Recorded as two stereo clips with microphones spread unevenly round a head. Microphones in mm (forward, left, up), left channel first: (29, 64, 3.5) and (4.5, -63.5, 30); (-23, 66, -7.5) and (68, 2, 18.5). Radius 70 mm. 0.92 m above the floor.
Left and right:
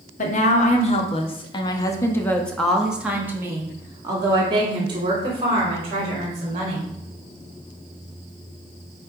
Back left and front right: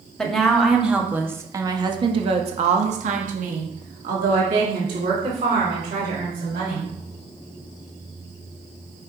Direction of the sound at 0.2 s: 65° left.